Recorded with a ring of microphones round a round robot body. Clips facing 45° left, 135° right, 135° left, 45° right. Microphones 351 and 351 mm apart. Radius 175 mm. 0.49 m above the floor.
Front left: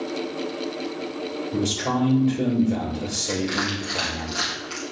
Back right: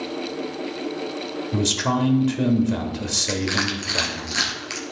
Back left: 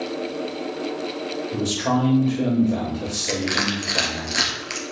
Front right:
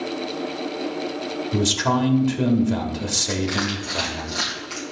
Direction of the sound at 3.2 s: Straight behind.